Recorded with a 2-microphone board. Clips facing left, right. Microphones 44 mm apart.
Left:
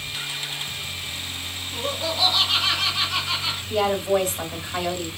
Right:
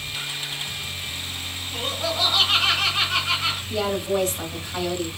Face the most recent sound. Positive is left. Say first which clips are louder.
# left 5 dB
turn(degrees=25)  # may be behind; listen again after turning